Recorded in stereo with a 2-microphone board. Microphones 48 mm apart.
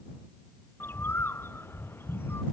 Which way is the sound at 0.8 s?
50° left (ahead or behind).